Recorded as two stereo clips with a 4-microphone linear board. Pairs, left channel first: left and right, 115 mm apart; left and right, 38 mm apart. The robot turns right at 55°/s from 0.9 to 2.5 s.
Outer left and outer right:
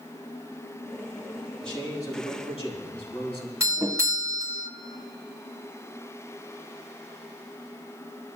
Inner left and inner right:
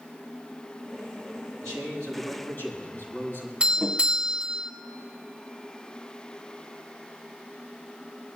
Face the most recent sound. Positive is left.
turn(degrees=-25)  # may be behind; listen again after turning